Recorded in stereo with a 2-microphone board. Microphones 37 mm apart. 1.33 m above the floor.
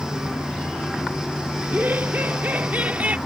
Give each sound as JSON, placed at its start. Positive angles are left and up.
{"t": 1.6, "sound": "laughter", "side_deg": -65}